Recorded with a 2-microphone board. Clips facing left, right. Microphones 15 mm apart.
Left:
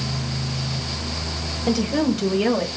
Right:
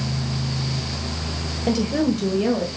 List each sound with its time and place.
1.7 s a woman speaking: 10° right (ahead or behind), 1.5 m; by 2.7 s 30° left (ahead or behind), 1.6 m